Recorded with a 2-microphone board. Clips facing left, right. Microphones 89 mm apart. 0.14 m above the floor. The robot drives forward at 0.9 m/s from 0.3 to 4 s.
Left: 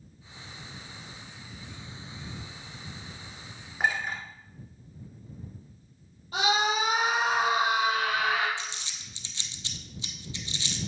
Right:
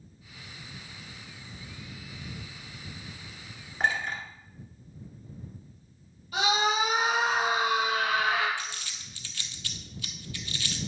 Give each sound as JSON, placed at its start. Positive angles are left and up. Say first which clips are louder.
{"t": 3.8, "sound": "a clink", "louder": "even", "side_deg": 10, "distance_m": 1.4}
{"t": 6.3, "sound": "a scream", "louder": "even", "side_deg": 35, "distance_m": 3.0}
{"t": 8.6, "sound": "crumpling", "louder": "even", "side_deg": 25, "distance_m": 0.8}